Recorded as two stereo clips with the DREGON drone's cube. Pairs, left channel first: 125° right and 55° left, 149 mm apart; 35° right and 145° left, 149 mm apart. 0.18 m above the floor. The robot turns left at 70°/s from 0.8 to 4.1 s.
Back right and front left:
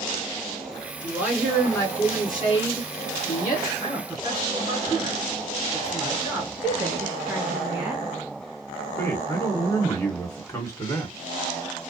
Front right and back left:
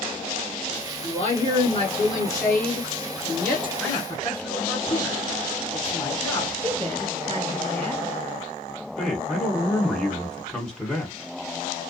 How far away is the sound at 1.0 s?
About 2.0 m.